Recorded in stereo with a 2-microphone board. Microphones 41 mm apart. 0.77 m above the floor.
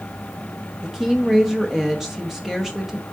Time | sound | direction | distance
0.8 | a woman speaking | 5° right (ahead or behind) | 0.9 m